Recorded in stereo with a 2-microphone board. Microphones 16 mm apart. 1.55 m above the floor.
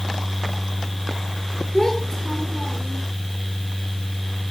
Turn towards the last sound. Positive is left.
turn(degrees=30)  # may be behind; listen again after turning